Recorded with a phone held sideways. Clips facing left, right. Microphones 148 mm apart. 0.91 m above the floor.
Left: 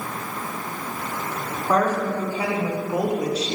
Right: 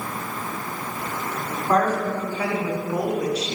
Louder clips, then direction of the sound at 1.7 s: Even; 10° left (ahead or behind).